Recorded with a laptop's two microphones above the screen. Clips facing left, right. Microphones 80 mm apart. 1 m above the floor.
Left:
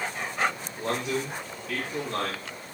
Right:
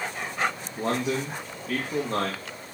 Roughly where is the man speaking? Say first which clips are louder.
Right 3 dB; right.